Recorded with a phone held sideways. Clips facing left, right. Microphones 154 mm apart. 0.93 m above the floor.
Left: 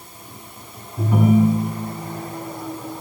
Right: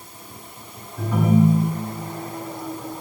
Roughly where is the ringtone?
Centre.